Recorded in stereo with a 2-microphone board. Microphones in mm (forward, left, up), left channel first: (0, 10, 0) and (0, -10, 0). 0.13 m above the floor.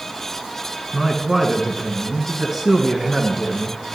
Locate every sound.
0.9 s a man speaking: 25° right (ahead or behind), 1.2 m